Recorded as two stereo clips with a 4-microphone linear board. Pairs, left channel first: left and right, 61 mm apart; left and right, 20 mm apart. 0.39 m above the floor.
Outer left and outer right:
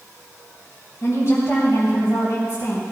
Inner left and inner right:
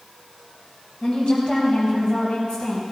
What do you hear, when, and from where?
1.0 s a woman speaking: 55° left (ahead or behind), 3 m